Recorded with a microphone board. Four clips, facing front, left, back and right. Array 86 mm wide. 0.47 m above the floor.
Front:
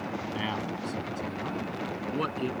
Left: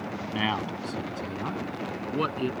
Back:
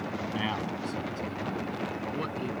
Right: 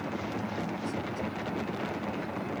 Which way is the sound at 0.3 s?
95° left.